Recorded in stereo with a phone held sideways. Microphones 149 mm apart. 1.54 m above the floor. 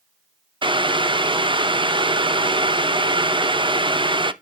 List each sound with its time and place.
0.6 s boiling: 35° right (ahead or behind), 0.6 m